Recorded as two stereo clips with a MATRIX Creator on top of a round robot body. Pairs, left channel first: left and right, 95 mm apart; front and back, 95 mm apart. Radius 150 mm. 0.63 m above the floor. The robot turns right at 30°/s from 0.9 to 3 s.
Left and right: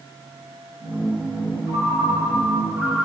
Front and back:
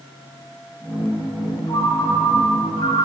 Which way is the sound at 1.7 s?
45° right.